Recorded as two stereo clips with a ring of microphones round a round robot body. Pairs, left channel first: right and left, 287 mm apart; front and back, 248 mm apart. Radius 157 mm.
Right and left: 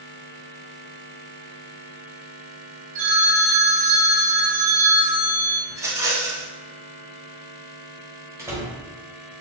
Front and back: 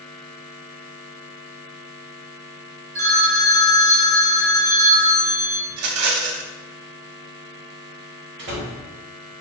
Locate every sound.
3.0 s a phone ringing: 155° left, 1.2 m
5.7 s a rattle: 170° left, 0.6 m
8.4 s a door slam: 170° left, 1.0 m